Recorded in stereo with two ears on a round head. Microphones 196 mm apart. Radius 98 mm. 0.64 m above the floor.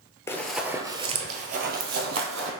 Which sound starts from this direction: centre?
Running footsteps, at 0.3 s.